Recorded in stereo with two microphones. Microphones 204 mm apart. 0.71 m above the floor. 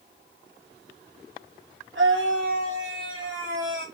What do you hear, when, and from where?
1.9 s a scream: 75° right (ahead or behind), 4 m; by 3.9 s 80° right, 3.5 m